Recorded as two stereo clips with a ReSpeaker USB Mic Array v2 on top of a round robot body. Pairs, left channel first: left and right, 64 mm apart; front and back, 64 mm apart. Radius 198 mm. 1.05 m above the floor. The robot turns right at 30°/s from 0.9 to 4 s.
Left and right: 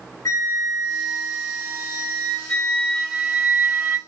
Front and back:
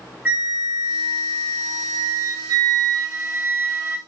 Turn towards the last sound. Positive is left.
turn(degrees=-155)